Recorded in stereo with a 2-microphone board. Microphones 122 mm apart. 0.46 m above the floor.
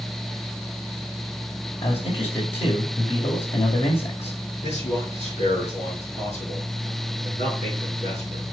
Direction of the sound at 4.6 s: 70° left (ahead or behind).